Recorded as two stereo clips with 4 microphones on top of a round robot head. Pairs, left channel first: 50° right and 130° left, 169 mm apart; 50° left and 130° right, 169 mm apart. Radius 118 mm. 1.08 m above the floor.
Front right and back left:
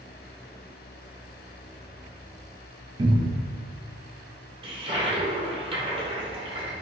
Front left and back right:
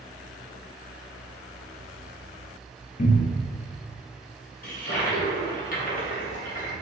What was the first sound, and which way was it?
A cupboard door, 75° left.